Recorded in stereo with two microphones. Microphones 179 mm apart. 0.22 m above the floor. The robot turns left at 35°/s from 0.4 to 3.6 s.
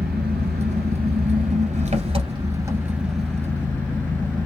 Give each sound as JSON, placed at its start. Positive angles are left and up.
{"t": 0.0, "sound": "an engine running", "azimuth_deg": -80, "distance_m": 1.2}